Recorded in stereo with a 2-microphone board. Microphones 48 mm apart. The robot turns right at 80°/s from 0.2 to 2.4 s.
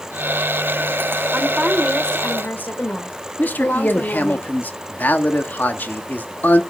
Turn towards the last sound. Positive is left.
turn(degrees=40)  # may be behind; listen again after turning